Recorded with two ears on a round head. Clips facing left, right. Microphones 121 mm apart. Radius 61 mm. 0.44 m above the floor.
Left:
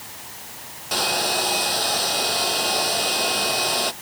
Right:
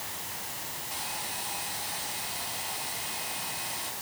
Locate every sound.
0.9 s a hair dryer: 85° left